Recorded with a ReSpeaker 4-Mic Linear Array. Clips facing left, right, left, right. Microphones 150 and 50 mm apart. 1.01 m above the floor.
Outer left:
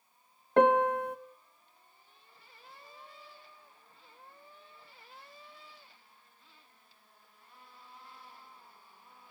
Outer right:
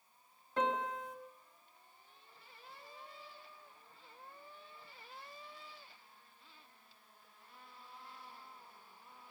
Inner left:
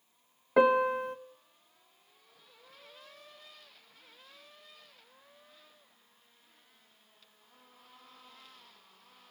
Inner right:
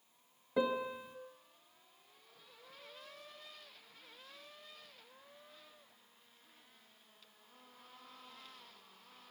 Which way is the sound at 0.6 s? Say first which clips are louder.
Outer left 12 dB, inner left 11 dB; 65° left (ahead or behind).